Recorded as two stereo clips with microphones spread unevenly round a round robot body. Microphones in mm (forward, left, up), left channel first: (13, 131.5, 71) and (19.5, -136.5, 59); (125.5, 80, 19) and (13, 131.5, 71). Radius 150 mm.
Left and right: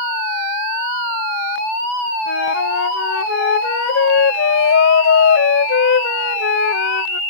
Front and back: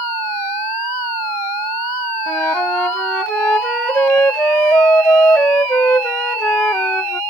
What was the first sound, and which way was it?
A flute, 50° left.